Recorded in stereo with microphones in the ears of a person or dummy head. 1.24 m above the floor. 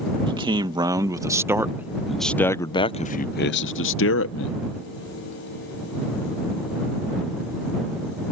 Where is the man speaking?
25° right (ahead or behind); by 4.6 s 65° left (ahead or behind).